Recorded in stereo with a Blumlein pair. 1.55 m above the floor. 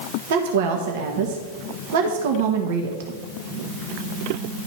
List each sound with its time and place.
0.3 s a woman speaking: 55° right, 1.2 m